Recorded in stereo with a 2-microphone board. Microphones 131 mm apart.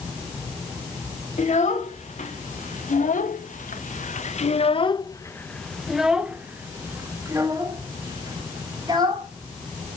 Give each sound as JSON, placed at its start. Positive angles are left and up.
{"t": 1.4, "sound": "a child speaking", "side_deg": 70, "distance_m": 2.5}